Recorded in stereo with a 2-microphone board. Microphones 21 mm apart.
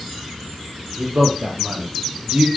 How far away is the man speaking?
About 4.5 m.